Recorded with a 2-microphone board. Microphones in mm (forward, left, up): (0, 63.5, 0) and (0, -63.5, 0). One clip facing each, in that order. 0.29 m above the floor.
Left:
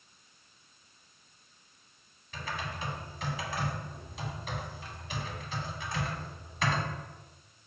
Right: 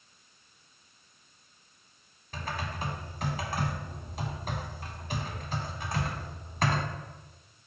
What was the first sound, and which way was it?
Typing on a keyboard, 45° right (ahead or behind).